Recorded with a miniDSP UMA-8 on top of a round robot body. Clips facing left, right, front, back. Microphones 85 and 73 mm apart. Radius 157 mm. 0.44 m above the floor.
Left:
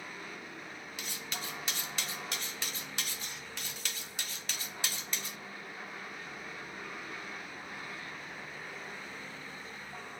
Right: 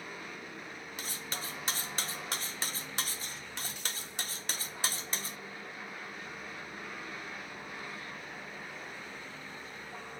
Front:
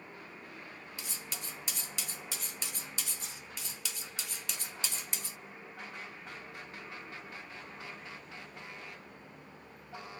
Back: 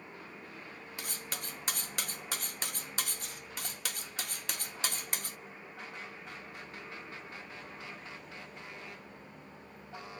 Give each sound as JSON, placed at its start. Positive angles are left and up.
{"t": 1.0, "sound": "cutlery clinking", "azimuth_deg": -145, "distance_m": 0.6}